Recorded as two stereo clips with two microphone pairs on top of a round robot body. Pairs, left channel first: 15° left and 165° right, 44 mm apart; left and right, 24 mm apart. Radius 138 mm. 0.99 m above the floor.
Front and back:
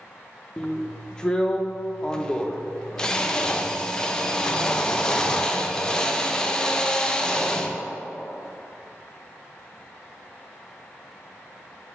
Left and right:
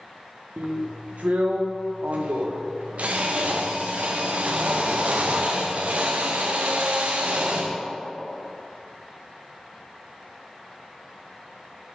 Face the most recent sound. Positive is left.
turn(degrees=-60)